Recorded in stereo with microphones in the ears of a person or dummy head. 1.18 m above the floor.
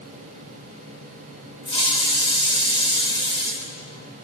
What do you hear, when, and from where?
1.6 s a hiss: 30° left (ahead or behind), 4 m